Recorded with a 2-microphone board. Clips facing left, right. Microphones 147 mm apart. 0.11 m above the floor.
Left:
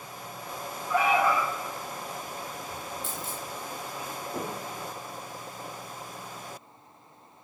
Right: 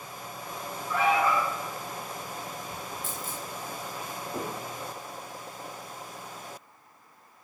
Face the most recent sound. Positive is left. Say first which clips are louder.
# even
turn(degrees=25)  # may be behind; listen again after turning